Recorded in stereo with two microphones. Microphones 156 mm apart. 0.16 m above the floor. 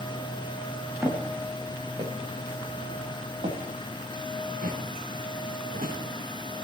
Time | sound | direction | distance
1.0 | footsteps | 15° right (ahead or behind) | 3 m